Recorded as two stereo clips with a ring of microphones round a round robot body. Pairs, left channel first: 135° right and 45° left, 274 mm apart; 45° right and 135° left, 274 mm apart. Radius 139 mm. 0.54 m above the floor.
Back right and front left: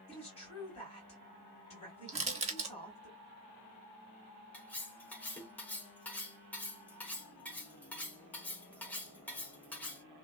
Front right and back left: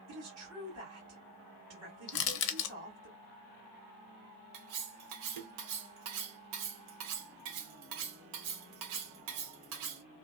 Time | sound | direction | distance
0.1 | a woman speaking | 160° left | 1.9 m
2.1 | crushing | 25° right | 0.5 m
4.5 | cutlery clinking | 140° left | 0.8 m